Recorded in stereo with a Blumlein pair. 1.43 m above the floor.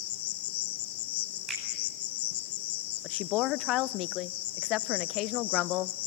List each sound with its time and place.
0.0 s an insect: 50° left, 1.2 m
1.5 s a finger snap: 20° right, 9.5 m
3.0 s a woman speaking: 40° left, 0.6 m